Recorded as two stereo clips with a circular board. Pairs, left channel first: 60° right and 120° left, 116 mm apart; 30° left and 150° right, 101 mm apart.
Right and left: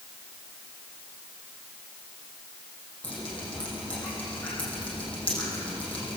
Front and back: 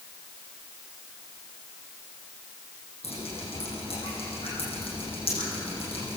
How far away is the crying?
I don't hear crying.